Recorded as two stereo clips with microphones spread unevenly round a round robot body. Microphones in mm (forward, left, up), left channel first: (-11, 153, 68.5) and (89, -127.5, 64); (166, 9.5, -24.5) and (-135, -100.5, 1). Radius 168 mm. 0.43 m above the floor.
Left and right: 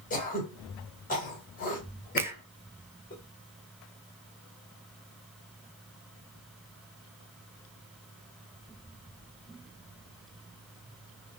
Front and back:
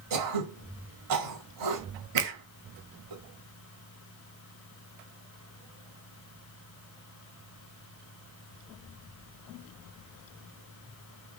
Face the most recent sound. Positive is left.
turn(degrees=-145)